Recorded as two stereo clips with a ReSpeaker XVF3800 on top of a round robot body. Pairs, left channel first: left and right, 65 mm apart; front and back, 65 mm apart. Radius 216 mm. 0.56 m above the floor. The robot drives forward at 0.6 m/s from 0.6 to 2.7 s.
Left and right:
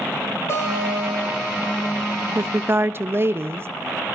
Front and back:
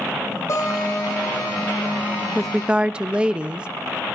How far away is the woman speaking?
About 0.7 m.